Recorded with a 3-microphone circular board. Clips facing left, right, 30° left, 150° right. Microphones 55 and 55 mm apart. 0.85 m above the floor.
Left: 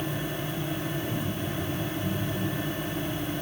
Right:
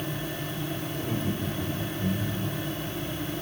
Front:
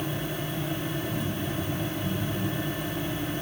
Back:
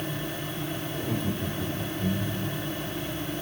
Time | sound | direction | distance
0.9 | laughter | 160° right | 3 m